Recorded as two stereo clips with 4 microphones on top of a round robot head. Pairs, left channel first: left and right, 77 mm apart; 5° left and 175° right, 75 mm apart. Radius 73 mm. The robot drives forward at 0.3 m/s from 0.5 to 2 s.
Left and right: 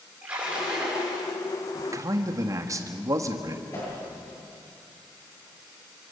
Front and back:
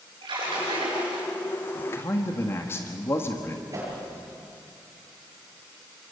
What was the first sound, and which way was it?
A splash, 165° right.